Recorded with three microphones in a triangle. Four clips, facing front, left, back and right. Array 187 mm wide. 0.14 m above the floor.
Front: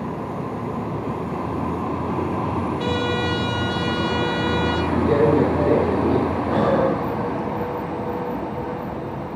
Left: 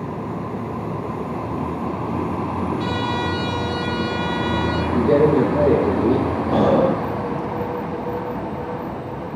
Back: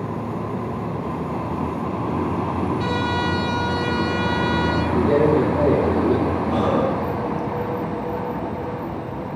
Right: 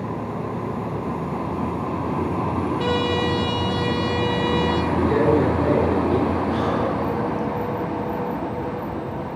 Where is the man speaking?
120° left, 4 m.